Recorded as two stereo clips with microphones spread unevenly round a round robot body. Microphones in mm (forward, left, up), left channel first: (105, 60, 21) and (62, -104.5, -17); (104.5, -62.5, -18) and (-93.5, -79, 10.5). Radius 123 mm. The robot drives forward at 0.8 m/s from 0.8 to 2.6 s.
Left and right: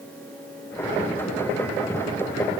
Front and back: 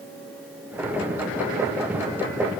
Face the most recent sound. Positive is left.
No sound to turn to.